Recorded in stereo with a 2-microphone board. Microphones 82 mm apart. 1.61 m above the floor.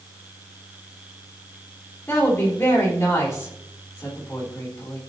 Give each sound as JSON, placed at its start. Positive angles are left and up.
{"t": 2.1, "sound": "a woman speaking", "side_deg": 35, "distance_m": 3.5}